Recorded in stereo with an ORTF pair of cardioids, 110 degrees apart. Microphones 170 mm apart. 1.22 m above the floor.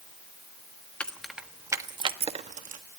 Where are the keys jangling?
5° left, 1.2 m; by 2.8 s 55° right, 1.3 m.